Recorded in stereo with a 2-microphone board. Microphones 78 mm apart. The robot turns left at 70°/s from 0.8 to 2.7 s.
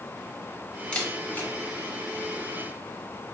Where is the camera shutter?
15° left (ahead or behind), 0.8 m; by 1.5 s 25° left (ahead or behind), 0.8 m.